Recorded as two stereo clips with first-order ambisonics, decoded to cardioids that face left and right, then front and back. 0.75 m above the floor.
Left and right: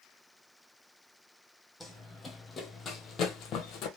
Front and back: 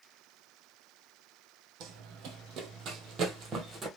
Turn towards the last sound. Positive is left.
turn(degrees=115)